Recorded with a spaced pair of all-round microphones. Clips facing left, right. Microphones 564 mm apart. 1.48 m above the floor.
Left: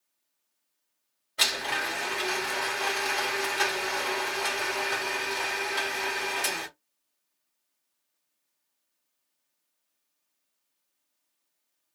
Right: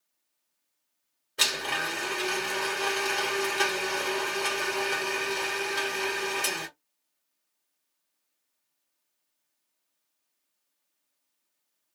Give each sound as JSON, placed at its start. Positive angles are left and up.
{"t": 1.4, "sound": "a blender", "side_deg": 5, "distance_m": 1.5}